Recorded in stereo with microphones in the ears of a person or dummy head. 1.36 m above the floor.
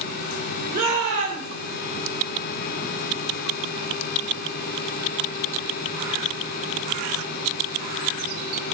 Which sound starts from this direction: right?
A shout, at 0.7 s.